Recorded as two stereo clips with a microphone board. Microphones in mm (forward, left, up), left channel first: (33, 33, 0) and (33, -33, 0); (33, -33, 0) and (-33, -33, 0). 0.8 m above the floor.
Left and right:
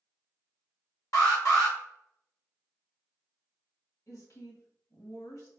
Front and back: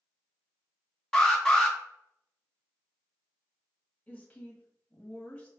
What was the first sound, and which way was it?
An alarm, 75° left.